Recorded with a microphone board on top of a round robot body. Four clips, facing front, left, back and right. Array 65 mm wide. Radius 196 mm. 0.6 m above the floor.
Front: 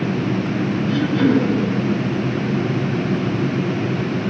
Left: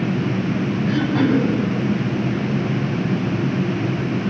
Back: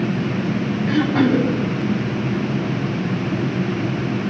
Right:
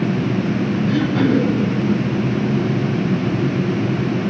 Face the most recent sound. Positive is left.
turn(degrees=160)